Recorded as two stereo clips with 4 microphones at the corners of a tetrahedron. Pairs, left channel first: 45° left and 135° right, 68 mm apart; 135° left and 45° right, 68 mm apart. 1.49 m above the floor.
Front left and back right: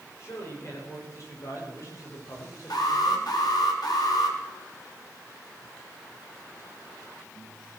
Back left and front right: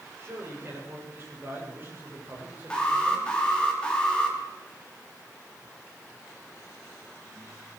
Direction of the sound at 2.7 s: 60° left.